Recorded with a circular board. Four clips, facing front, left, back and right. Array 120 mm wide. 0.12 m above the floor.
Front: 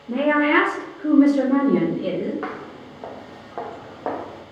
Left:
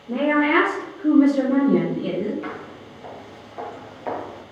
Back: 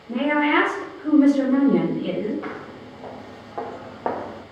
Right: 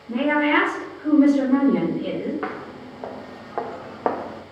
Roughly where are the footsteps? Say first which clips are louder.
Right 3 dB, front 2 dB; ahead right.